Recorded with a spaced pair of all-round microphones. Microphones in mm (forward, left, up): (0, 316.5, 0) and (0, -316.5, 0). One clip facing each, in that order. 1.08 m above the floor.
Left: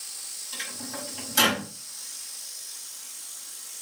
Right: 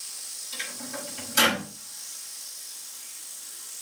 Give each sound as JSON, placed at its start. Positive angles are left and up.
{"t": 0.5, "sound": "a microwave", "side_deg": -35, "distance_m": 6.0}